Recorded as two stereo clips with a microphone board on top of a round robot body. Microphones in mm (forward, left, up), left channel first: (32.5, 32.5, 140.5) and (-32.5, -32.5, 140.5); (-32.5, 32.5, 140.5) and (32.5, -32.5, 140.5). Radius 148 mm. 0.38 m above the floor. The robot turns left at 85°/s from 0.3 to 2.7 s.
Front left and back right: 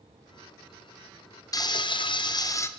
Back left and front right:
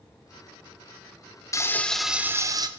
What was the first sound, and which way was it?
Frying, 85° left.